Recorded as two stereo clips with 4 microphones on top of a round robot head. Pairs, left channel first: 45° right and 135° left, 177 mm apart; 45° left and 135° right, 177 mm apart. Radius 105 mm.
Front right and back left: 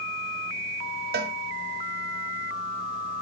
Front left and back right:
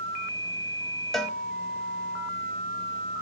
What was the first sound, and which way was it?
A cowbell, 135° left.